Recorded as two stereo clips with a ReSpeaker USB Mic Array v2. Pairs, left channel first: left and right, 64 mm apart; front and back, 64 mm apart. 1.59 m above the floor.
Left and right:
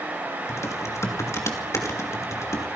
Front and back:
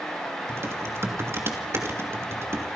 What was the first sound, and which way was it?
Typing on a keyboard, 130° left.